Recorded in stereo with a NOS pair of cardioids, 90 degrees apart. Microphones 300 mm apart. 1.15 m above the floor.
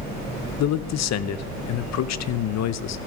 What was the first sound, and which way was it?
A man speaking, 60° left.